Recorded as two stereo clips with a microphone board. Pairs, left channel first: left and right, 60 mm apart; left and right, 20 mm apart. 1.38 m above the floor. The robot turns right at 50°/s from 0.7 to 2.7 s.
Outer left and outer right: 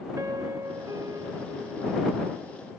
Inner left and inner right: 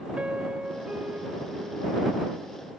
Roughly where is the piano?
Right.